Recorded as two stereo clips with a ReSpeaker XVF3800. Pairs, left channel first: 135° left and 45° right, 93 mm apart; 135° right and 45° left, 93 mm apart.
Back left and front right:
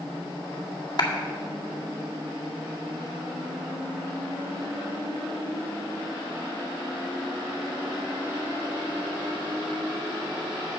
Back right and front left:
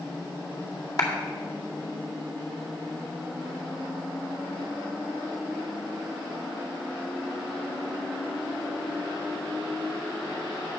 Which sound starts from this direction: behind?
A clap, at 1.0 s.